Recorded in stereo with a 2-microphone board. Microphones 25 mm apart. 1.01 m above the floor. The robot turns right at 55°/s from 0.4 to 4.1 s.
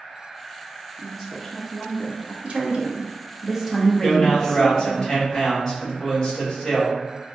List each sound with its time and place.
1.0 s a woman speaking: 25° right, 0.6 m; by 2.3 s 50° left, 0.6 m
2.4 s a woman speaking: 70° right, 0.7 m; by 5.0 s 20° left, 0.7 m
4.0 s a man speaking: 25° left (ahead or behind), 1.7 m; by 7.0 s 30° left (ahead or behind), 1.7 m